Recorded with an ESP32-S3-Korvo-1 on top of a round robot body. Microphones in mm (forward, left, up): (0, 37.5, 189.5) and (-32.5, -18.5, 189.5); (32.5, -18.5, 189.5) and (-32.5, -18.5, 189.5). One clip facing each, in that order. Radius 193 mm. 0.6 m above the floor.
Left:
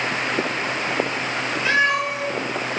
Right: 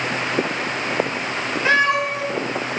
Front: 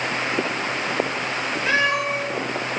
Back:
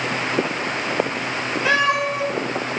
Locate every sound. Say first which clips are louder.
1.6 s a cat meowing: right 2 dB, back 3 dB; 170° right, 0.8 m